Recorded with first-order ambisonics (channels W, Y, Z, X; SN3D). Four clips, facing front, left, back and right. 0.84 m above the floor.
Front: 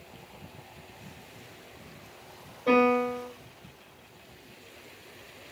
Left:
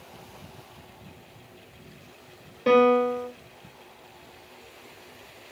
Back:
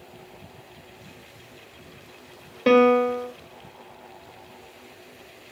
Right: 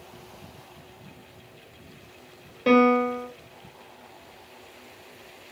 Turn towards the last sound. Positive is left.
turn(degrees=-170)